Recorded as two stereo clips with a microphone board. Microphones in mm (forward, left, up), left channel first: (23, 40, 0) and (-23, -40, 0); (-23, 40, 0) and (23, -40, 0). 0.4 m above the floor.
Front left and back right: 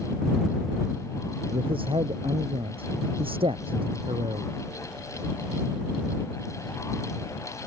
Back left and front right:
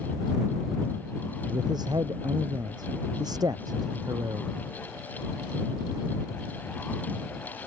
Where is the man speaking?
100° right; by 4.5 s 105° right.